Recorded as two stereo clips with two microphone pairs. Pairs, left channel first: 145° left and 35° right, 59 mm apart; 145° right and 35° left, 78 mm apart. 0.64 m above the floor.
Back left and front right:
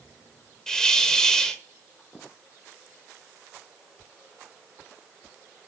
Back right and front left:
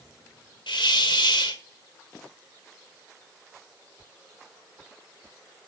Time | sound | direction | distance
0.7 | a hiss | 140° right | 1.2 m